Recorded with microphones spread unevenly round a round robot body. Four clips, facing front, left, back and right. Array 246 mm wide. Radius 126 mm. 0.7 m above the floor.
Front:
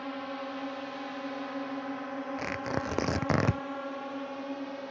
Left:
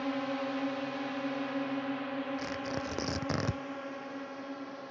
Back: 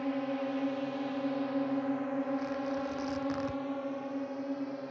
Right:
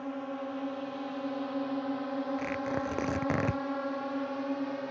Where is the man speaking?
I don't hear a man speaking.